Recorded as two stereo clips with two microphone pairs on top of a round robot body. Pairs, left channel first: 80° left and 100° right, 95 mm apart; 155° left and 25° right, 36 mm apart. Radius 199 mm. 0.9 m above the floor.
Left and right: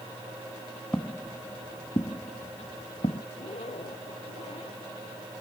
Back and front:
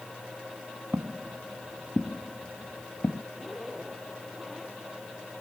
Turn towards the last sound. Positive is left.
turn(degrees=70)